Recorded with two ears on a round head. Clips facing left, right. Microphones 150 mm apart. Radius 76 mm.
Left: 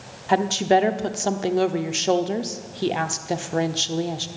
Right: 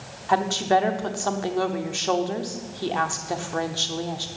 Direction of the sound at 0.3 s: 20° left (ahead or behind).